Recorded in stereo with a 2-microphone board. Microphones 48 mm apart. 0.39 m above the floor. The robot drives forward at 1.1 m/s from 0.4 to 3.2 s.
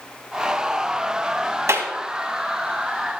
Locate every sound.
1.7 s a clap: 65° right (ahead or behind), 2.5 m